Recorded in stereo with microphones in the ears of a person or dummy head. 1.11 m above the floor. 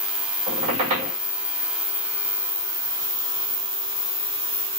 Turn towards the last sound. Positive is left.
turn(degrees=-25)  # may be behind; listen again after turning